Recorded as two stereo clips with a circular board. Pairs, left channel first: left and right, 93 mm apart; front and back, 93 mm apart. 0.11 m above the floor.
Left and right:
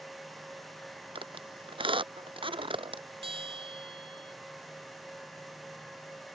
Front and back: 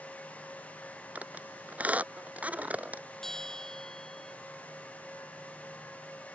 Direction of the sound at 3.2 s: 85° right.